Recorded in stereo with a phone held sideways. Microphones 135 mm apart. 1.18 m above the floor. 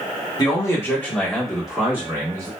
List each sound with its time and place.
0.4 s a man speaking: 30° left (ahead or behind), 1.2 m; by 2.5 s 25° right (ahead or behind), 1.5 m